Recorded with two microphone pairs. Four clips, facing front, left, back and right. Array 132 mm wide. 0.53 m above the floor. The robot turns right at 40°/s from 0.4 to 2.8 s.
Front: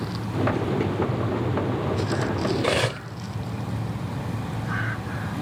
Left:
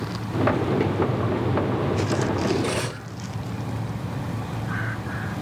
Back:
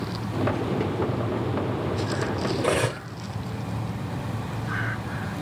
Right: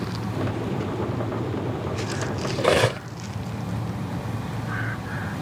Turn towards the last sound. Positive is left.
turn(degrees=-85)